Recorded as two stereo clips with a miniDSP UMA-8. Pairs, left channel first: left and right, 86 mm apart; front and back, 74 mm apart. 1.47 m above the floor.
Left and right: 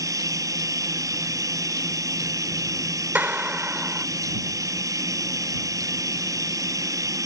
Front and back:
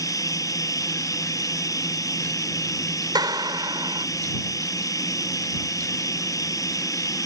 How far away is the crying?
No crying in this recording.